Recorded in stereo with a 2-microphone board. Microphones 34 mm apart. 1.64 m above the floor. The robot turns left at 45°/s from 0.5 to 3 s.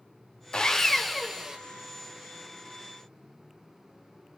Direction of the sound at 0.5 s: 30° left.